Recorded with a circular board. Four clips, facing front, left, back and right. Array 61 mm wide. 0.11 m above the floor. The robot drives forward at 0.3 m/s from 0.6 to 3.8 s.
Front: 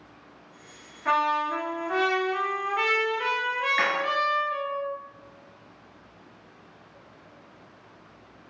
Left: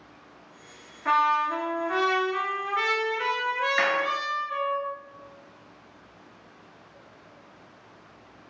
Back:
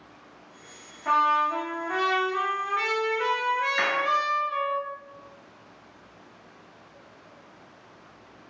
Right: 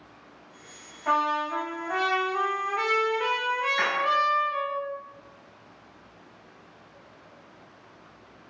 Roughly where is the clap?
Left.